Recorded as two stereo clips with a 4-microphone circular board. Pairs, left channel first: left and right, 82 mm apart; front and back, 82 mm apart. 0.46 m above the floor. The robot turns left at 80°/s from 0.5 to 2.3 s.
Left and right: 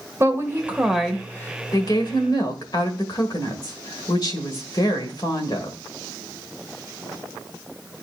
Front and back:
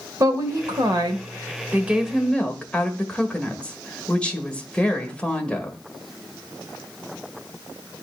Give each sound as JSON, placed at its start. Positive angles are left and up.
{"t": 0.2, "sound": "a woman speaking", "azimuth_deg": -140, "distance_m": 1.5}